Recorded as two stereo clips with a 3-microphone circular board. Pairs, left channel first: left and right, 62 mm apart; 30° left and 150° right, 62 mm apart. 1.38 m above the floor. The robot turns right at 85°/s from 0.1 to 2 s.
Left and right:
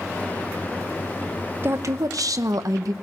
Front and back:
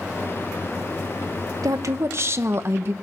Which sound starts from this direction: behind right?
A woman speaking, at 1.6 s.